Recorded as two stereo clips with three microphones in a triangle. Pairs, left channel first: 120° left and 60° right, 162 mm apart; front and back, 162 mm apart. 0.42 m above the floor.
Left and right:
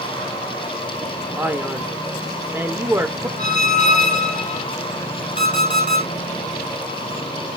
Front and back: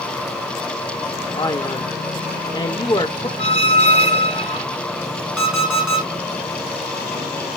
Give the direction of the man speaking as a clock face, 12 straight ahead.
12 o'clock.